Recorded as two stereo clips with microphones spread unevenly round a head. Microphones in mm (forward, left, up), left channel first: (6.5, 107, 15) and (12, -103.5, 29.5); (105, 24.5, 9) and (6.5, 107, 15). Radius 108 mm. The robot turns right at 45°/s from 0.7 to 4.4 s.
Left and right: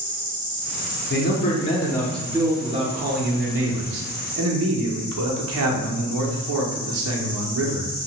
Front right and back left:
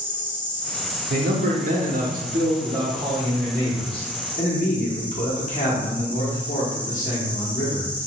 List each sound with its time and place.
0.0 s an insect: 125° right, 1.1 m; by 8.1 s 40° left, 1.1 m
1.1 s a man speaking: 130° left, 0.6 m; by 7.9 s 80° right, 0.6 m